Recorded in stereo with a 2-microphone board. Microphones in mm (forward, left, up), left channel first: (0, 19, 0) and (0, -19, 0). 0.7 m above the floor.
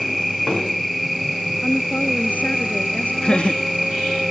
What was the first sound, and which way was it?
An insect, centre (ahead or behind).